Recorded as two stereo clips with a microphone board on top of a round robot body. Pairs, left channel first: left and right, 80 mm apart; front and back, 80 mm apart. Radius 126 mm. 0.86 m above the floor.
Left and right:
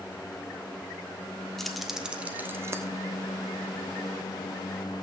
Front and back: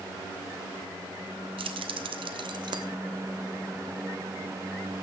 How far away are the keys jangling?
About 1.3 m.